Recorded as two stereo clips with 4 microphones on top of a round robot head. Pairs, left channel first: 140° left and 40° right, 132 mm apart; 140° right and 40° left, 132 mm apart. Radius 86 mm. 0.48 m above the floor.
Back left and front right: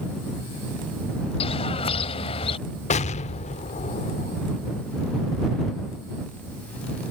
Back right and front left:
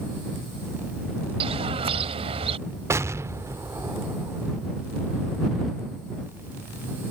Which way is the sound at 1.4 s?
90° left.